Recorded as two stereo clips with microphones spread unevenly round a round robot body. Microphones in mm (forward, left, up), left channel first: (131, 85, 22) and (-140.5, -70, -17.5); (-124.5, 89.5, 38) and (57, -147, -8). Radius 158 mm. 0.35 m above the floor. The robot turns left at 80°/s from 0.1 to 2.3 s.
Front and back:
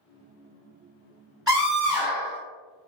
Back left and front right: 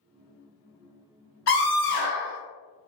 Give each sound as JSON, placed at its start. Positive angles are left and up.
{"t": 1.5, "sound": "a scream", "azimuth_deg": 130, "distance_m": 1.9}